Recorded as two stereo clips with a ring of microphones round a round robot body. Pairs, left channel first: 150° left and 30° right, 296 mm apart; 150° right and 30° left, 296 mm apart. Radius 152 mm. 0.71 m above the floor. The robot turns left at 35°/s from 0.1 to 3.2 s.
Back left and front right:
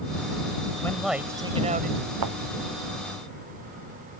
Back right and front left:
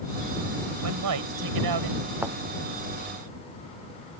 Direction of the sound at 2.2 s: 55° right.